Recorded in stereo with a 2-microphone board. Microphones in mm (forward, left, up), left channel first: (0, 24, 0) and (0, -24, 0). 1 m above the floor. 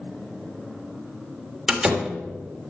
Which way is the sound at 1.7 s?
5° right (ahead or behind).